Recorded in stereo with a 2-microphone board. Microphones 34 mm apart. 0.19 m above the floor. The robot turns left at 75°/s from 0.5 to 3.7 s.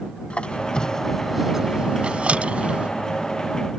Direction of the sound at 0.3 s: 35° left (ahead or behind).